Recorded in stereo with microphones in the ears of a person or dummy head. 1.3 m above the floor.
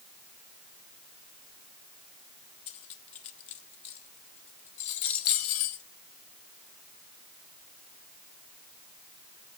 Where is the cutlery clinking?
40° left (ahead or behind), 1.0 m.